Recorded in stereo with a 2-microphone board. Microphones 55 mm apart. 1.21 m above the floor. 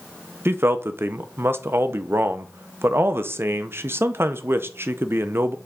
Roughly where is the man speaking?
Right.